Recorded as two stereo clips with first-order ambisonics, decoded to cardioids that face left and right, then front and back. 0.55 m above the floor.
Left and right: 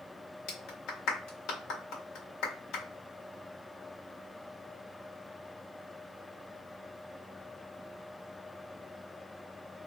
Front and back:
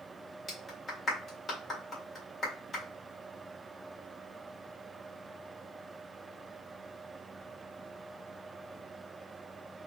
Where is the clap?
60° left, 1.7 m.